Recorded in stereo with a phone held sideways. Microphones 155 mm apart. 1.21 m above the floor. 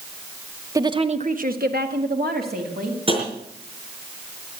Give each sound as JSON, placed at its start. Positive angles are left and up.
{"t": 0.8, "sound": "a woman speaking", "side_deg": -20, "distance_m": 1.3}
{"t": 3.1, "sound": "tapping", "side_deg": -35, "distance_m": 5.0}